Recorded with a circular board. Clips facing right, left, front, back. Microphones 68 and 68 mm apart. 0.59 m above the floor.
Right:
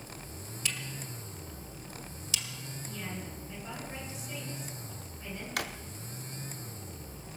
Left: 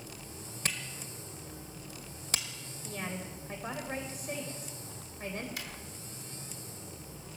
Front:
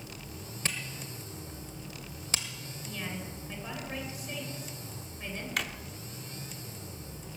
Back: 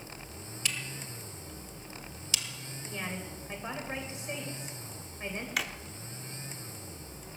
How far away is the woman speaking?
About 2.5 m.